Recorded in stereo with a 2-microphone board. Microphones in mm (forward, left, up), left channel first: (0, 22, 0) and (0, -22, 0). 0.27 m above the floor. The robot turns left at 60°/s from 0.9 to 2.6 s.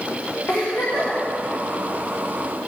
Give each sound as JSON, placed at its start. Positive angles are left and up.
{"t": 0.5, "sound": "a giggle", "side_deg": 65, "distance_m": 5.0}